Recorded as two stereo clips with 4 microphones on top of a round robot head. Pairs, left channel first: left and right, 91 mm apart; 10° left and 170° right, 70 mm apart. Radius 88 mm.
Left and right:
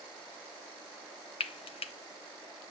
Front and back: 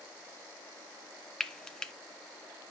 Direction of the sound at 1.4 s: 90° left.